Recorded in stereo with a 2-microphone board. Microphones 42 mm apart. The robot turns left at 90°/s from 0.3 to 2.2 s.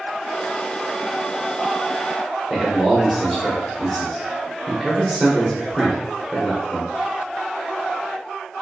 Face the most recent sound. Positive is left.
turn(degrees=0)  # may be behind; listen again after turning